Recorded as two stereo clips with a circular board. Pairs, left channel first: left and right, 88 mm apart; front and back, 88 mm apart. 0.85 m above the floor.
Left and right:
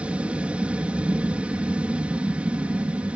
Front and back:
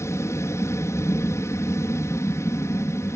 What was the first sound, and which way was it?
An aircraft, 25° right.